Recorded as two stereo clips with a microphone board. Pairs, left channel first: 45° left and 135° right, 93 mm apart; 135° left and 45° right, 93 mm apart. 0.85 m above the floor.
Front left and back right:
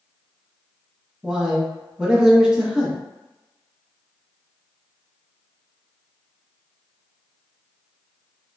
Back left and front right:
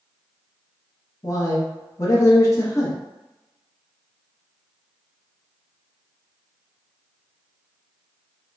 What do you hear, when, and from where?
1.2 s a man speaking: 150° left, 0.8 m